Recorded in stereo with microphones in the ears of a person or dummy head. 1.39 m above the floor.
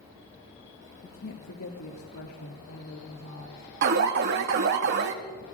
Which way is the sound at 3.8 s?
55° right (ahead or behind).